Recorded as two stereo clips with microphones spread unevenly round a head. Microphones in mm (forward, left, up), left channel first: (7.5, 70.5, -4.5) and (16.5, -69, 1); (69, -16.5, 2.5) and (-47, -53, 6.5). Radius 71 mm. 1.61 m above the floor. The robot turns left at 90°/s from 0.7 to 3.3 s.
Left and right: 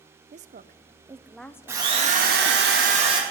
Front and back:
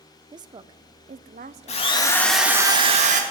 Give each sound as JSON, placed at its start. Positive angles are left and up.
{"t": 0.3, "sound": "a woman speaking", "azimuth_deg": -115, "distance_m": 0.6}
{"t": 1.7, "sound": "a drill", "azimuth_deg": -10, "distance_m": 2.0}